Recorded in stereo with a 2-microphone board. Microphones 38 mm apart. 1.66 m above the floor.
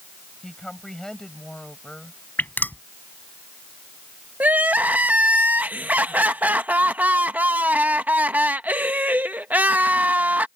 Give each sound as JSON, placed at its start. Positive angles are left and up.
{"t": 0.4, "sound": "a woman speaking", "side_deg": 15}
{"t": 2.4, "sound": "dripping", "side_deg": 55}
{"t": 4.4, "sound": "crying", "side_deg": -50}